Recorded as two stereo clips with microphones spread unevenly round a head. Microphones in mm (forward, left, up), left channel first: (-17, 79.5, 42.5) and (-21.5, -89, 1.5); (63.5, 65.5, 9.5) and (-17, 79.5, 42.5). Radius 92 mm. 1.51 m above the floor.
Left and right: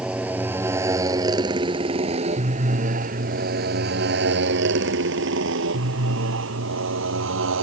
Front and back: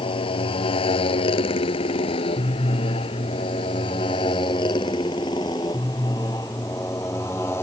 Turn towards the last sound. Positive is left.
turn(degrees=-85)